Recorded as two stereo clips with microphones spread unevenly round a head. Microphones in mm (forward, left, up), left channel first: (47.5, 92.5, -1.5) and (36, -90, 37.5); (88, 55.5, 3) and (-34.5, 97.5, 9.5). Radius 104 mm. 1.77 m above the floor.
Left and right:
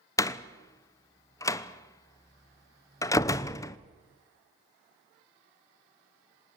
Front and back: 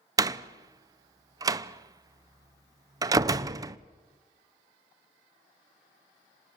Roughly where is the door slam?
Behind.